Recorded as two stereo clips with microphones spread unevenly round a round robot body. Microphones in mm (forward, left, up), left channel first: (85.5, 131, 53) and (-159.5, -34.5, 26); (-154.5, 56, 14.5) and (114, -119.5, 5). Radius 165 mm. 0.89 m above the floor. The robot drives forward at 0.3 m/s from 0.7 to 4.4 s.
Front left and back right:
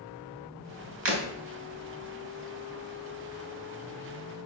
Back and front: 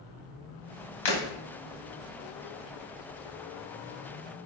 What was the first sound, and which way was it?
Breaking glass, 165° left.